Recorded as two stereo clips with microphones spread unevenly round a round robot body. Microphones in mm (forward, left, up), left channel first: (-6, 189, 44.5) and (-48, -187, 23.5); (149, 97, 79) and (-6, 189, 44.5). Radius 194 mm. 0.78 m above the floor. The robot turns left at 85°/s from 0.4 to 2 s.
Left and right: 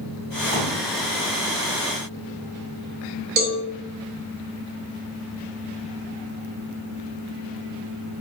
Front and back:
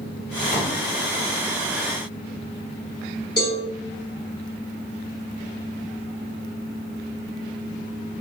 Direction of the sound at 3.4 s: 110° right.